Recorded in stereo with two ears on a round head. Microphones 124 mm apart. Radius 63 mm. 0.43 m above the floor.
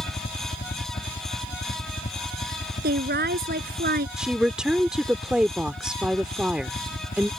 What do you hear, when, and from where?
0.0 s a helicopter: 55° left (ahead or behind); by 7.4 s 65° left (ahead or behind)
2.8 s a woman speaking: 75° right (ahead or behind)
4.2 s a woman speaking: 5° right (ahead or behind)